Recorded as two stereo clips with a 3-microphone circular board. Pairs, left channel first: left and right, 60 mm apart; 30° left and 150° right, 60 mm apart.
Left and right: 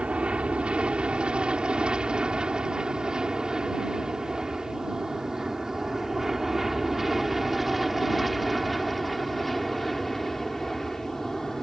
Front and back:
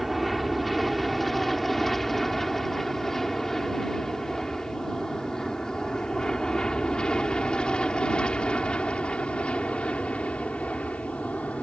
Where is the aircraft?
60° right; by 11.6 s 15° left.